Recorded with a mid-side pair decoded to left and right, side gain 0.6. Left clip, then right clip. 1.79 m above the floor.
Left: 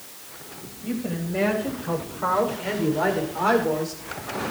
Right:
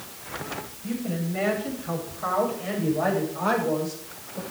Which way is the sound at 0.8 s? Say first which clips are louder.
Left 3 dB; 50° left.